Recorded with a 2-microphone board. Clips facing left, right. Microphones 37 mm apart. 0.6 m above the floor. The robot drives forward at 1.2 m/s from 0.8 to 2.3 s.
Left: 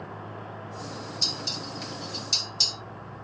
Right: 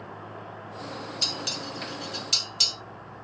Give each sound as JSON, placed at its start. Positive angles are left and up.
{"t": 1.2, "sound": "dishes clattering", "side_deg": -50, "distance_m": 1.3}